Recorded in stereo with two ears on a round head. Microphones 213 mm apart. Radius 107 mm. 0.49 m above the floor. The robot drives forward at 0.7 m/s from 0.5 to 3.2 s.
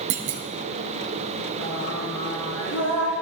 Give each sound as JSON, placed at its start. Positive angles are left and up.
{"t": 0.1, "sound": "a clunk", "side_deg": -55, "distance_m": 1.3}
{"t": 1.6, "sound": "singing", "side_deg": 80, "distance_m": 4.5}